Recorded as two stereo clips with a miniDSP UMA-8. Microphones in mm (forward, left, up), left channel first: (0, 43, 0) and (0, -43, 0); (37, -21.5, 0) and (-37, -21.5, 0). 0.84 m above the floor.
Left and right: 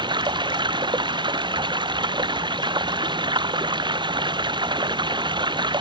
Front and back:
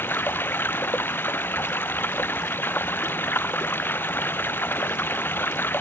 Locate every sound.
0.0 s running water: 60° right